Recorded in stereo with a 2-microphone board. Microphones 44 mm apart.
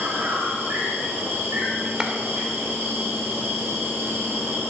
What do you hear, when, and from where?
0.0 s an insect: 60° right (ahead or behind), 5.5 m
2.0 s a clap: 15° right (ahead or behind), 1.6 m